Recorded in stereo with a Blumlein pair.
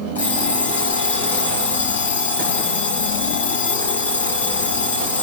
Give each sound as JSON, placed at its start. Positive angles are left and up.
{"t": 0.1, "sound": "an alarm clock", "azimuth_deg": 65, "distance_m": 5.5}